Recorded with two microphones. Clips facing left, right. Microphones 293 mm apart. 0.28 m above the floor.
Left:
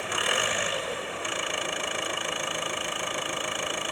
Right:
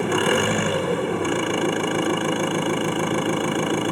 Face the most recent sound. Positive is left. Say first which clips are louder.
# right 13 dB
turn(degrees=-65)  # may be behind; listen again after turning